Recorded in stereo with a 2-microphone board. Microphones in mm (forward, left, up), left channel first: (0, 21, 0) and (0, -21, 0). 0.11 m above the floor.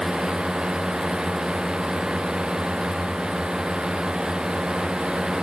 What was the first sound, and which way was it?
A drone, 15° right (ahead or behind).